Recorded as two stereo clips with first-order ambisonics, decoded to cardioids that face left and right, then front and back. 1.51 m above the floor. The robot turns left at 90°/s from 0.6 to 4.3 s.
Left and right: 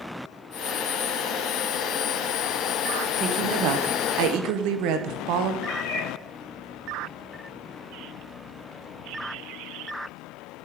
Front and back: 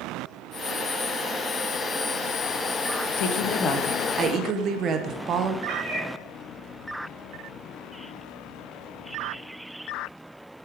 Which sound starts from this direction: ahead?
A woman speaking, at 3.2 s.